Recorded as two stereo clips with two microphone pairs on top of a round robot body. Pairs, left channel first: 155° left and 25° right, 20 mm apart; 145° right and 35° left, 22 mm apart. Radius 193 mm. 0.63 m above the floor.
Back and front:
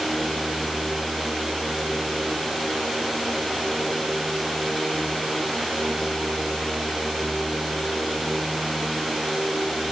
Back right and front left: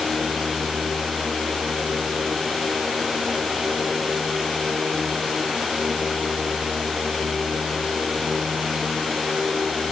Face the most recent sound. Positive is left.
No sound to turn to.